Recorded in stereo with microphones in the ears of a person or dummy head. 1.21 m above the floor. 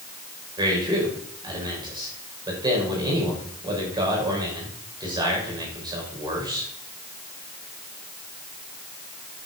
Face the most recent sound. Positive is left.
turn(degrees=-20)  # may be behind; listen again after turning